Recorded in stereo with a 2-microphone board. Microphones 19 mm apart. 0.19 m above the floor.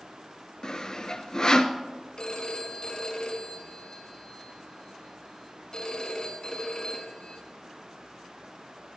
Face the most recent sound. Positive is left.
turn(degrees=45)  # may be behind; listen again after turning